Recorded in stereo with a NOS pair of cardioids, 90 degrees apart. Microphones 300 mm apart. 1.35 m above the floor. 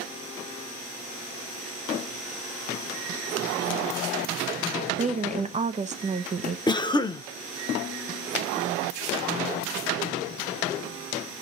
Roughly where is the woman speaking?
Ahead right.